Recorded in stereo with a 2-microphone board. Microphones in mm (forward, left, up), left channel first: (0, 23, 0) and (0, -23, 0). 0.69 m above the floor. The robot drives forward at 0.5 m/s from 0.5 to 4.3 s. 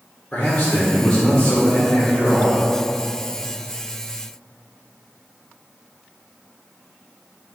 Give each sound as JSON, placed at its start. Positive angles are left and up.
{"t": 0.3, "sound": "a man speaking", "side_deg": 25, "distance_m": 1.1}